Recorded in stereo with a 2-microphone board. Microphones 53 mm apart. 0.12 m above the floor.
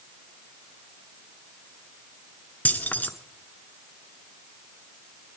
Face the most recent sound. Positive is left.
turn(degrees=35)  # may be behind; listen again after turning